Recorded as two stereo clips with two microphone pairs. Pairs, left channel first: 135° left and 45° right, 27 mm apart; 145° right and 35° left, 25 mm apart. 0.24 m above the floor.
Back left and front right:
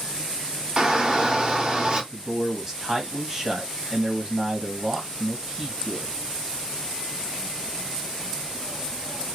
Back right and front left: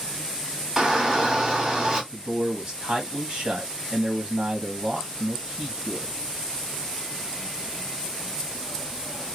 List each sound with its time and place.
0.8 s a shout: 30° right, 1.5 m
2.1 s a man speaking: 15° left, 1.3 m